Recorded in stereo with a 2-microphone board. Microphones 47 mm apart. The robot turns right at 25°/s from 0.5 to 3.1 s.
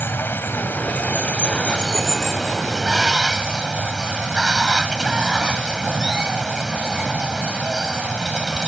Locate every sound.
0.0 s running water: 130° left; by 8.7 s 165° right